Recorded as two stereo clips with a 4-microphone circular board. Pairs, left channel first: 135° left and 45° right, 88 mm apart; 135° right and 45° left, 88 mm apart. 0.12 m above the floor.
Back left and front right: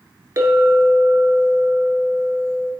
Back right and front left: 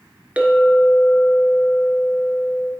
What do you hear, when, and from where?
0.4 s a clink: 20° right, 1.0 m